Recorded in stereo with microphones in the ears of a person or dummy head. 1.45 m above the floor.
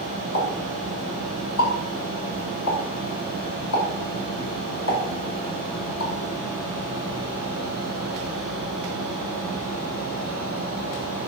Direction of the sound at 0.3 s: 85° left.